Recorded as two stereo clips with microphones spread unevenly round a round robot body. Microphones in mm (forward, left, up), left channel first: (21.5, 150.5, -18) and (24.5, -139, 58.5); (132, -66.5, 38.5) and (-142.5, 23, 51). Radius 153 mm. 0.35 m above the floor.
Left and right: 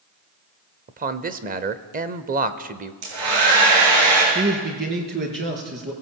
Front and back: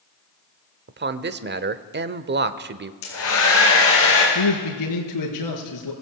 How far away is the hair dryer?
About 8.5 m.